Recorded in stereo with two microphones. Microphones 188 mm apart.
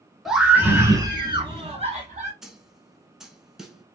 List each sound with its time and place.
0.2 s a scream: centre (ahead or behind), 1.3 m; by 2.3 s 40° right (ahead or behind), 1.7 m
2.4 s a snare drum: centre (ahead or behind), 0.8 m